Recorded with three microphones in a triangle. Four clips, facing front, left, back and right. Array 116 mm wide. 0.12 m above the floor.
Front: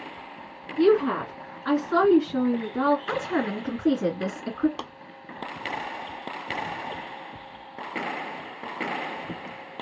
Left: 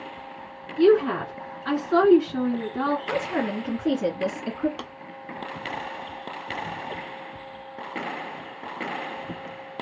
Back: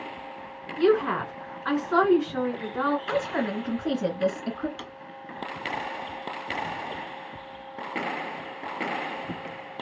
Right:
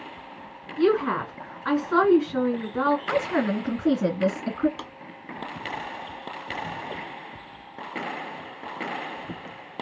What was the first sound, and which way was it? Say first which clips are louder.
A woman speaking: left 3 dB, front 2 dB; 120° right.